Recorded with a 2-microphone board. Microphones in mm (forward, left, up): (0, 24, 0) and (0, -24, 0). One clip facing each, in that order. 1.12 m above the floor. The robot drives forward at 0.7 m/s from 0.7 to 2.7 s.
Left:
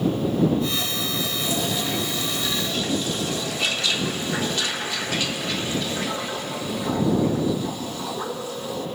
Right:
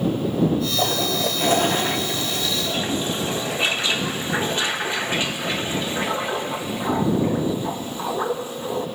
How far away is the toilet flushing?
About 0.7 m.